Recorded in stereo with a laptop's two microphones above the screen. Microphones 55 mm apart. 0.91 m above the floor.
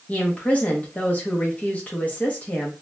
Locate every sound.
0.1 s a woman speaking: 30° left (ahead or behind), 0.6 m